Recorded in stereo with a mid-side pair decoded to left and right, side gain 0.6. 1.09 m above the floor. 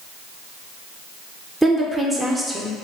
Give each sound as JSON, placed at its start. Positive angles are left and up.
{"t": 1.6, "sound": "a woman speaking", "azimuth_deg": 0, "distance_m": 0.5}